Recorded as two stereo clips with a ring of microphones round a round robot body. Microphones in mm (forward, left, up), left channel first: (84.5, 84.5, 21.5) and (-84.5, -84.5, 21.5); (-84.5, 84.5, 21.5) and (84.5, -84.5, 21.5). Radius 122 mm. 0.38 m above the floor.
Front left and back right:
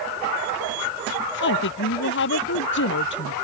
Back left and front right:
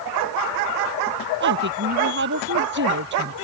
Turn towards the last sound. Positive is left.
turn(degrees=0)